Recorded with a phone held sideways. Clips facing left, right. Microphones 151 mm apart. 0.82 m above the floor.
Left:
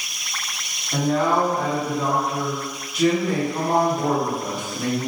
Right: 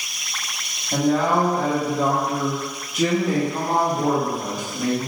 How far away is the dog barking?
I don't hear a dog barking.